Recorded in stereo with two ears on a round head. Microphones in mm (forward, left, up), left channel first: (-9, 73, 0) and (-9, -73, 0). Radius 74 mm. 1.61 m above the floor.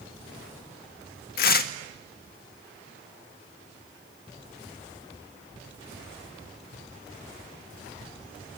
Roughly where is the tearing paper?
Left.